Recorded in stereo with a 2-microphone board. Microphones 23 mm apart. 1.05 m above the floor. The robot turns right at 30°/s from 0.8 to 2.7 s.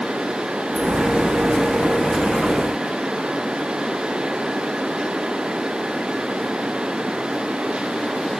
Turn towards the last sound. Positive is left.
No sound to turn to.